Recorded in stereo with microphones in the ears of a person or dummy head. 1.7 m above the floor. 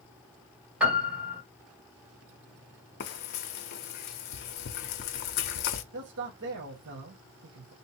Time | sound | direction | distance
0.8 | a piano | 10° right (ahead or behind) | 1.6 m
3.0 | frying | 50° left (ahead or behind) | 0.6 m
5.9 | a man speaking | 80° right | 1.7 m